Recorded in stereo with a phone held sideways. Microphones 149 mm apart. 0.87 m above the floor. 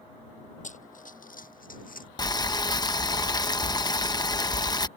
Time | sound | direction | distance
0.6 | running footsteps | 60° left (ahead or behind) | ?
2.2 | boiling | 30° left (ahead or behind) | ?